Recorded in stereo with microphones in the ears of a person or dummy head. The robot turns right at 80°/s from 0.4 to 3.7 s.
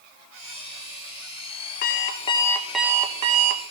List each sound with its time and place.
1.8 s an alarm clock: 110° left, 0.6 m; by 3.6 s 110° right, 0.6 m